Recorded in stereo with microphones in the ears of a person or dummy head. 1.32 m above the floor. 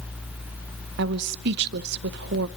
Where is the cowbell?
No cowbell in this recording.